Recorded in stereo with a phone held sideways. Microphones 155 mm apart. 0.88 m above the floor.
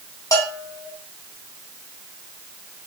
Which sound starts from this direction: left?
A bell, at 0.3 s.